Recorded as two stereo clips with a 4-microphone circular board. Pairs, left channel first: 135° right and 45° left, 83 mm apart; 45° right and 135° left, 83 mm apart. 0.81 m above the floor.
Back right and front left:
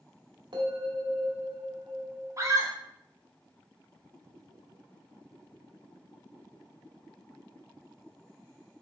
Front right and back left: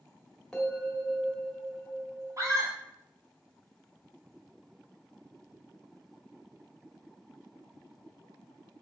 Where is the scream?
90° left, 2 m.